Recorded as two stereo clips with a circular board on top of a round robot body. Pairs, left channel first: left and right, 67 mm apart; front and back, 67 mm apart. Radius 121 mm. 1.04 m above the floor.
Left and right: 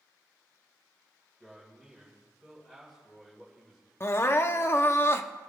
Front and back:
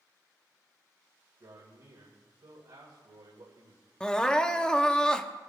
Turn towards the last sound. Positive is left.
turn(degrees=70)